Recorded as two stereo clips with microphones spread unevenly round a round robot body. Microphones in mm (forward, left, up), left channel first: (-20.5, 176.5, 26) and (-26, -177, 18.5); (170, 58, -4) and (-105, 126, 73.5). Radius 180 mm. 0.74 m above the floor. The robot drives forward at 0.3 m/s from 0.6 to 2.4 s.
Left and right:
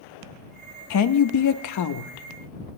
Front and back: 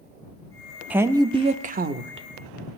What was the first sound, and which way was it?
A woman speaking, 70° left.